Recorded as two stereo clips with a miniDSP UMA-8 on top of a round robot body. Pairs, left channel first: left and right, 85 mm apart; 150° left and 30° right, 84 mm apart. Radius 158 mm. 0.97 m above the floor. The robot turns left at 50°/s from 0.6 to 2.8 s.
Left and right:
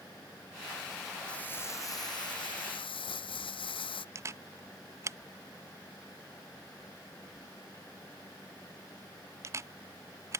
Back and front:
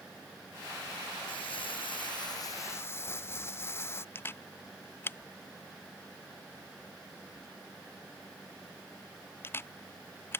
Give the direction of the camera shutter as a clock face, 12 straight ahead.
5 o'clock.